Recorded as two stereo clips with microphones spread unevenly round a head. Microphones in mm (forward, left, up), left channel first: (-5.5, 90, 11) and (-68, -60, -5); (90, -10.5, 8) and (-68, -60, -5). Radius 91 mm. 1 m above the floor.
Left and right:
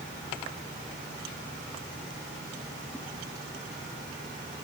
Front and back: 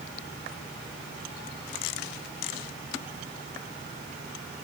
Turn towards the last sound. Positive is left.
No sound to turn to.